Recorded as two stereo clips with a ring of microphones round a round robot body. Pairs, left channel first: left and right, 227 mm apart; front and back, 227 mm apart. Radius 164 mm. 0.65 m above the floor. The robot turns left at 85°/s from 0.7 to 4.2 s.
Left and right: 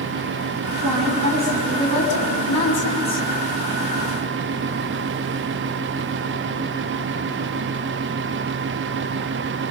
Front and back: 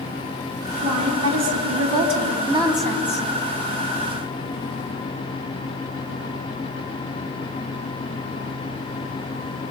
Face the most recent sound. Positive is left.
turn(degrees=-30)